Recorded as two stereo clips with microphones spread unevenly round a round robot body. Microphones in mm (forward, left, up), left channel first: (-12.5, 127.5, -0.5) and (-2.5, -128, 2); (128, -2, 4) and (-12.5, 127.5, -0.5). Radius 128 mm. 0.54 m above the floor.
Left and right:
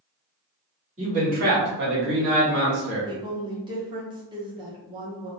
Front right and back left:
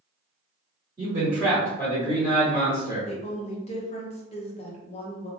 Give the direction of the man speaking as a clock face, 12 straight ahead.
5 o'clock.